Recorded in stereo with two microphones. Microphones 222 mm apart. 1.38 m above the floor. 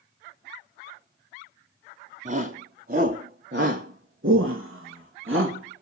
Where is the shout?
40° right (ahead or behind), 3.5 m; by 5.8 s 65° right (ahead or behind), 2.5 m.